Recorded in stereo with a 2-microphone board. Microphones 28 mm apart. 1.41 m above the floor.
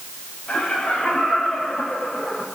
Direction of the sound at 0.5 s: 40° left (ahead or behind).